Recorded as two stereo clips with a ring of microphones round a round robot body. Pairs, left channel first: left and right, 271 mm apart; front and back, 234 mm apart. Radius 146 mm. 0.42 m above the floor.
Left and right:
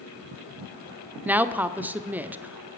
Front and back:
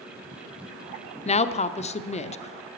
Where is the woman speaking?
10° right, 0.9 m.